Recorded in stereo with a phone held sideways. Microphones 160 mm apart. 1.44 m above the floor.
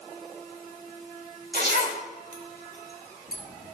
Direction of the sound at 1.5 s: 70° right (ahead or behind).